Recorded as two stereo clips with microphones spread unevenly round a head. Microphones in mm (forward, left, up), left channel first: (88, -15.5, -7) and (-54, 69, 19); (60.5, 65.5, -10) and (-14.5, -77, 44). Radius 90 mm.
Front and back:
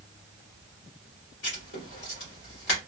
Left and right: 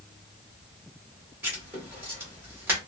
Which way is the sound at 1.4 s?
55° right.